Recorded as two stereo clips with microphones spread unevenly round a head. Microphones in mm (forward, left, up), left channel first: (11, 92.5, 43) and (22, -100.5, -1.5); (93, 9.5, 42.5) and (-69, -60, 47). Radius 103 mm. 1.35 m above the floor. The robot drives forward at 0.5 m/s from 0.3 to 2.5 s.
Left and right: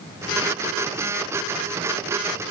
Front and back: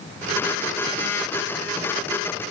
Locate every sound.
Only background noise.